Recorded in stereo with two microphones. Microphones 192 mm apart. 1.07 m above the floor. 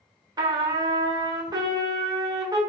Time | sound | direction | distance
0.4 | a trumpet | 20° right (ahead or behind) | 0.9 m